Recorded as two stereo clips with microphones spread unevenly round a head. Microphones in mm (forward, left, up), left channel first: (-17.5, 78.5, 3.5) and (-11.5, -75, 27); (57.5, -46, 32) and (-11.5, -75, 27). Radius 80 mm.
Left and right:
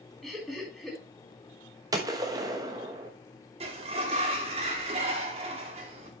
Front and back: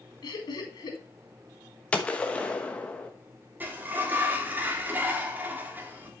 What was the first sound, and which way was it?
Laughter, straight ahead.